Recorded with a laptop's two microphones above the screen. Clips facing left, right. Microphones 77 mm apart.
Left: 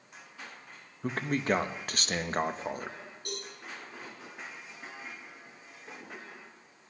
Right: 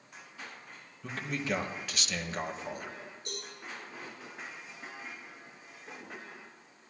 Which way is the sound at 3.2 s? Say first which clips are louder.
Left 4 dB; 65° left (ahead or behind).